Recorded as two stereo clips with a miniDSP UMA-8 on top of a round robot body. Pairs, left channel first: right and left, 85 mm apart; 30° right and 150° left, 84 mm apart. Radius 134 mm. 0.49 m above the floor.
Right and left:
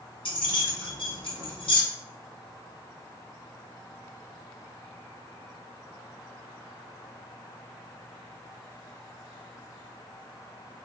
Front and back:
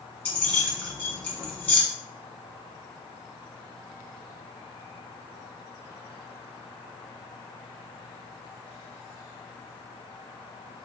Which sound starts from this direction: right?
Keys jangling, at 0.2 s.